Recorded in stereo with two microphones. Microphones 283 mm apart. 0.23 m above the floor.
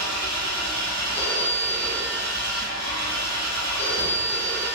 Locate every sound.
0.0 s an engine running: 85° right, 1.3 m
1.1 s a phone ringing: 25° right (ahead or behind), 1.6 m